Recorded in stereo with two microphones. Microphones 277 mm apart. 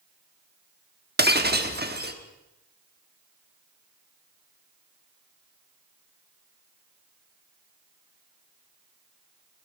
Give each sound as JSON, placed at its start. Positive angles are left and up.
{"t": 1.2, "sound": "breaking glass", "side_deg": -35, "distance_m": 1.1}